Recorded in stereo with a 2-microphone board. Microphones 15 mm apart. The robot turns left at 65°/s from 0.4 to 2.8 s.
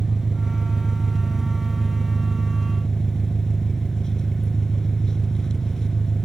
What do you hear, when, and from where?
0.0 s an engine running: 100° right, 2.0 m; by 6.3 s 100° left, 2.0 m